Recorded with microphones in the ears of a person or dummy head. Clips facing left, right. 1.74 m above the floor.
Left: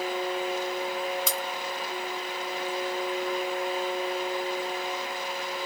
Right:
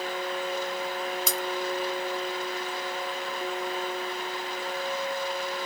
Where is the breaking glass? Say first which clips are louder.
Even; 45° right (ahead or behind).